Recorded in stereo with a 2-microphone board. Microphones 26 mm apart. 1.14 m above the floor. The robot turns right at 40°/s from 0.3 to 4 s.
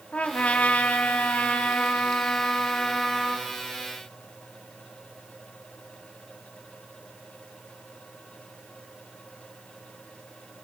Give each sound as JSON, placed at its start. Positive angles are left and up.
{"t": 0.1, "sound": "a trumpet", "azimuth_deg": 60, "distance_m": 3.0}